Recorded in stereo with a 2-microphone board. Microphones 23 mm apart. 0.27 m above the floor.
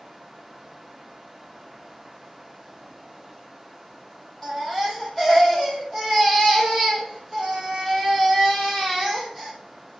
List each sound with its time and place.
4.4 s a baby crying: 20° left (ahead or behind), 4.5 m